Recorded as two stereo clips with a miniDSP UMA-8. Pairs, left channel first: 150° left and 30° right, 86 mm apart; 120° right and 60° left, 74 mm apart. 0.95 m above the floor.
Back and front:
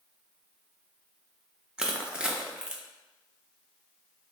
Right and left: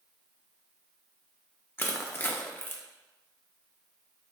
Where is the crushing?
100° right, 0.6 m.